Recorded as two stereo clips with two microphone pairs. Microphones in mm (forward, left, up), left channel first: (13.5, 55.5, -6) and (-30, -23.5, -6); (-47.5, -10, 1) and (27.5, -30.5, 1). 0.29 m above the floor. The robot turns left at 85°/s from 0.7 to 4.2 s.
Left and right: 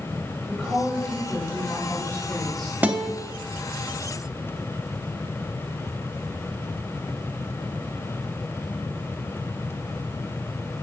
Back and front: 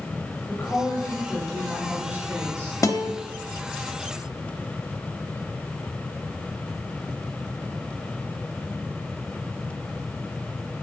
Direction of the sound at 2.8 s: 175° left.